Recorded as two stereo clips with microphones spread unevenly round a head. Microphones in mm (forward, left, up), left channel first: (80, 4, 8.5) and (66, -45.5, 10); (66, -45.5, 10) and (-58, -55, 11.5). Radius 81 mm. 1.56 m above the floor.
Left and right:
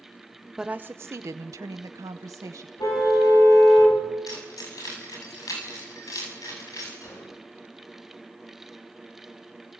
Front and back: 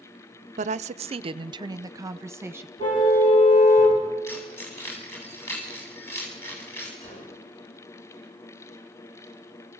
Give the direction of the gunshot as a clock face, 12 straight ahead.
10 o'clock.